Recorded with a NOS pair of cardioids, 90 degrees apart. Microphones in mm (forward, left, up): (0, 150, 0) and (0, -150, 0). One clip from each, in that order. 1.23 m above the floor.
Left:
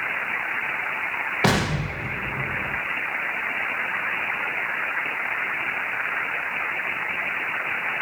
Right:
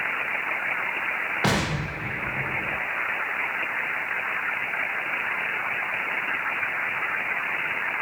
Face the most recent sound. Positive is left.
turn(degrees=20)